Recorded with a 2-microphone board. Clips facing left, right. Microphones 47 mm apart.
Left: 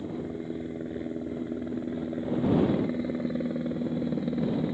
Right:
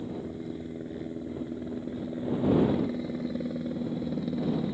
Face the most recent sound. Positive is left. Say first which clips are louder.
# left 2 dB
turn(degrees=20)  # may be behind; listen again after turning